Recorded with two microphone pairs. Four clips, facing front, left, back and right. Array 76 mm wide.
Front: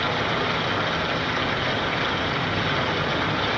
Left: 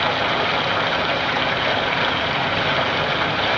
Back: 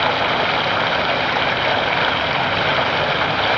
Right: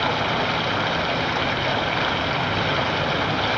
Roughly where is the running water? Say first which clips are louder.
Left 2 dB, back 6 dB; behind.